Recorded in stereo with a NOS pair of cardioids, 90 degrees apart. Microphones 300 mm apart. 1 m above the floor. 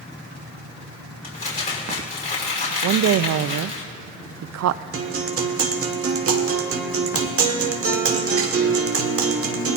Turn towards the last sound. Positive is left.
turn(degrees=-50)